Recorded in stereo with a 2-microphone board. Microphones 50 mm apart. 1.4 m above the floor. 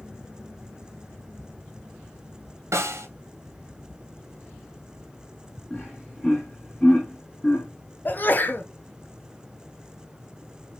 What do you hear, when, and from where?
2.7 s a snare drum: 75° right (ahead or behind), 1.0 m
5.7 s laughter: 20° left (ahead or behind), 2.5 m
8.1 s a sneeze: 40° left (ahead or behind), 0.6 m